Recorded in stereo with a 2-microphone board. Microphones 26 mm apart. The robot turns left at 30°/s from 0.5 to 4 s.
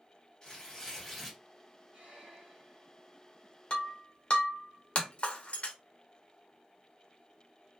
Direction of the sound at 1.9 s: 60° right (ahead or behind).